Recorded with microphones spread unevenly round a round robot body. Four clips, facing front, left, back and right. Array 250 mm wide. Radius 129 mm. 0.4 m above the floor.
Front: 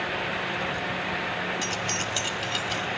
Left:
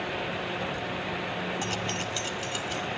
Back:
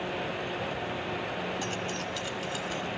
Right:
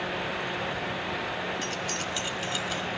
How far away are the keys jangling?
About 0.6 m.